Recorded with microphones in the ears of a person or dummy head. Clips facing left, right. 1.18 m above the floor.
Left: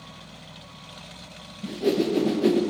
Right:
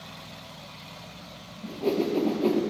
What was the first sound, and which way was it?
A whoosh, 15° left (ahead or behind).